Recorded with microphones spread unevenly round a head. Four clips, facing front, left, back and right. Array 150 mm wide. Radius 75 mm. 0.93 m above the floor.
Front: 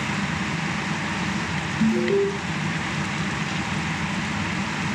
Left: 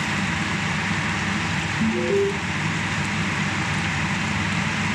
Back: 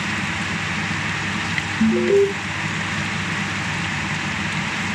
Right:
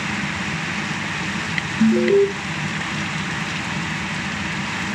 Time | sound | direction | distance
1.8 | an alarm | 130° right | 1.4 m